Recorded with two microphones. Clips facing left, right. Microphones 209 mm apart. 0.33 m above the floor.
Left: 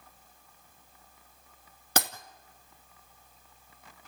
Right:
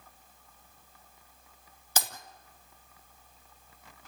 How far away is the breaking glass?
About 2 m.